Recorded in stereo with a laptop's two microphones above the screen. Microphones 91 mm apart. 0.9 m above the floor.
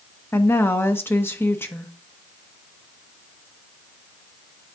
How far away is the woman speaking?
About 0.9 m.